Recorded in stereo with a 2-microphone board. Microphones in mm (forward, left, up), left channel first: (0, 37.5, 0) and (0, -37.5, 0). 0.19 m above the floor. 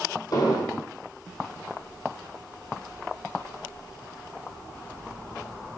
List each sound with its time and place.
0.3 s an explosion: 55° left (ahead or behind), 2.5 m